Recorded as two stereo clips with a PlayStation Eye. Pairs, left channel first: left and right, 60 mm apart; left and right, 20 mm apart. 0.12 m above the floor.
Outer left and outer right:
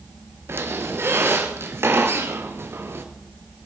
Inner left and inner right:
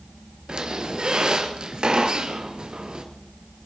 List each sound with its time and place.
0.5 s a squeak: 45° right (ahead or behind), 1.7 m